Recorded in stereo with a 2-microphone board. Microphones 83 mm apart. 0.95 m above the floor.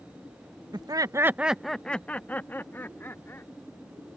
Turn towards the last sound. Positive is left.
turn(degrees=30)  # may be behind; listen again after turning